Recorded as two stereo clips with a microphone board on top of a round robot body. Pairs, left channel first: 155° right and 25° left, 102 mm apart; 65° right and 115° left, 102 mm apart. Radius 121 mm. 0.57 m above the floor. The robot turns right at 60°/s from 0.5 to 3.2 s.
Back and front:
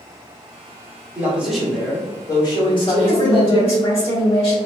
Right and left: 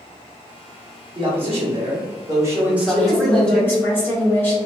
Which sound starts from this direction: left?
A man speaking, at 1.1 s.